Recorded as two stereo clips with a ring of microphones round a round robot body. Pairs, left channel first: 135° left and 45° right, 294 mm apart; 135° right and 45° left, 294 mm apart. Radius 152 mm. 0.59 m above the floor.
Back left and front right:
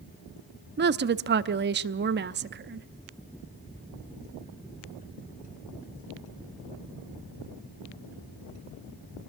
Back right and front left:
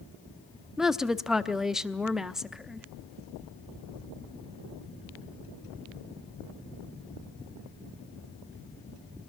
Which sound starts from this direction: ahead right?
A woman speaking, at 0.8 s.